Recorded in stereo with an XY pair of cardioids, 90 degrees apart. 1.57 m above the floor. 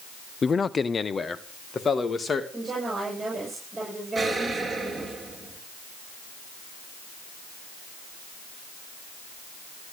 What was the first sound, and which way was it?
A man speaking, 40° left.